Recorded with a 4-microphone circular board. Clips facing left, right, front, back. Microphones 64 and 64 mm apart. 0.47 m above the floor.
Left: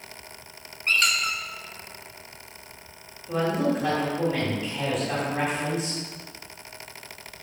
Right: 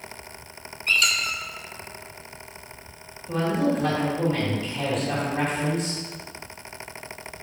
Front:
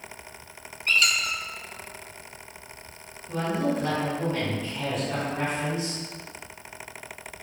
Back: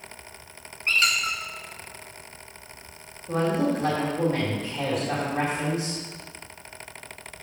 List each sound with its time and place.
0.9 s a squeak: 130° left, 1.0 m
3.3 s a woman speaking: 170° left, 2.5 m